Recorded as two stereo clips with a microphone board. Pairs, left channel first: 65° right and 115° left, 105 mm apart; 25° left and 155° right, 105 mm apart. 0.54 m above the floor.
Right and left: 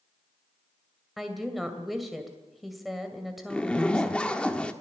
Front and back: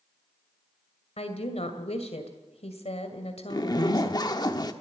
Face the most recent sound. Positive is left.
turn(degrees=5)